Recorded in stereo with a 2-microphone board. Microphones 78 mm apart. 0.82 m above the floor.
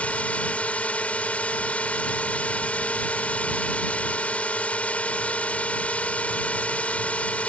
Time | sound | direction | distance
0.0 | a drone | 20° left (ahead or behind) | ?